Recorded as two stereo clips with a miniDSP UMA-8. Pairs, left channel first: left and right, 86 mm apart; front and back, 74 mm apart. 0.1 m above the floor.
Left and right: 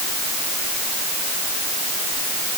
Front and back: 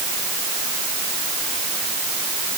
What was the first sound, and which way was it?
Only background noise.